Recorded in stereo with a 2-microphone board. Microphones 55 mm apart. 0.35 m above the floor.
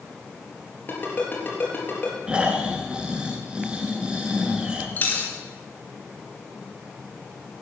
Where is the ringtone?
40° left (ahead or behind), 4 m.